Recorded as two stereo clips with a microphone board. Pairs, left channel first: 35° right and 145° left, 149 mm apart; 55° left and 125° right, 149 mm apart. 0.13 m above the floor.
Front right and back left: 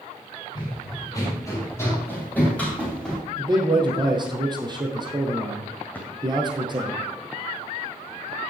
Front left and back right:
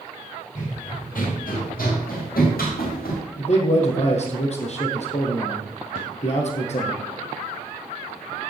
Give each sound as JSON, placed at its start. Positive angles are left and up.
{"t": 0.6, "sound": "running footsteps", "azimuth_deg": 25, "distance_m": 5.5}
{"t": 3.4, "sound": "a man speaking", "azimuth_deg": 90, "distance_m": 2.5}
{"t": 6.0, "sound": "a drawer", "azimuth_deg": 45, "distance_m": 2.5}